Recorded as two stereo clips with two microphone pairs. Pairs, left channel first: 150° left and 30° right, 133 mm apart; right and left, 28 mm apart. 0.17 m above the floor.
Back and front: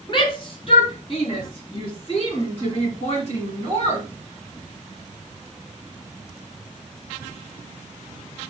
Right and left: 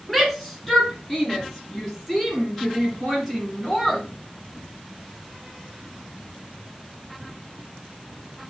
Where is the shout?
175° right, 2.5 m; by 4.0 s 170° right, 4.5 m.